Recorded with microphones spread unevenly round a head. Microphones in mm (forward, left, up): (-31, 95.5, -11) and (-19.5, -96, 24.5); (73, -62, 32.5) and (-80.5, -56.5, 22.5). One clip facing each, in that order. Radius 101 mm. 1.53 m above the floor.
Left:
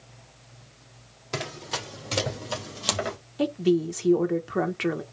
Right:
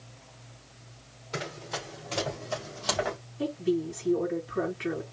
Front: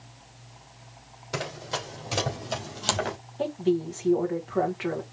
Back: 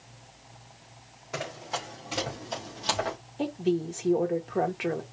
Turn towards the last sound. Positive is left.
turn(degrees=100)